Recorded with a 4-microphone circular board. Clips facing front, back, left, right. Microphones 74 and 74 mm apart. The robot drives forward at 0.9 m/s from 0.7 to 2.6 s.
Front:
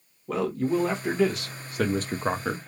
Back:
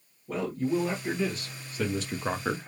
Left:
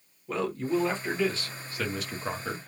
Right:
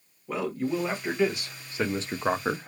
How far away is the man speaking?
About 1.7 m.